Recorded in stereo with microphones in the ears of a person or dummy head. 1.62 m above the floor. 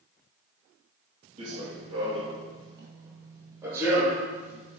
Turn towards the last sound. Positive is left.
turn(degrees=-5)  # may be behind; listen again after turning